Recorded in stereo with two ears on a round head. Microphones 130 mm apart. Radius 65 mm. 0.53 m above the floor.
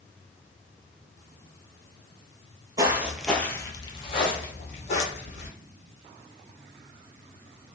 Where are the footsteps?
25° right (ahead or behind), 0.5 m; by 5.5 s 55° left (ahead or behind), 1.3 m.